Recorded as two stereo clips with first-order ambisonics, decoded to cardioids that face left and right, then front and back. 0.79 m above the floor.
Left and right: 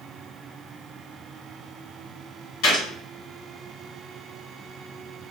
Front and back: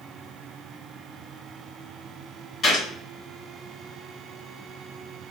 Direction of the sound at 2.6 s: 75° left.